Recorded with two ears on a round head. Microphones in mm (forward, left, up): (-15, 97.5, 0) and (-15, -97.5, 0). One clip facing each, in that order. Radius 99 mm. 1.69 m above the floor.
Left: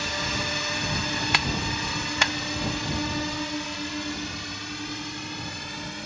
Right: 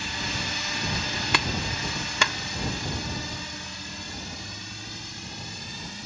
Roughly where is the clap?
Right.